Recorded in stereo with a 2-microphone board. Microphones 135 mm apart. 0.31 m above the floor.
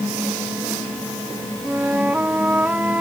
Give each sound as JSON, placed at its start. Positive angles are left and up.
{"t": 1.6, "sound": "a flute", "side_deg": -10}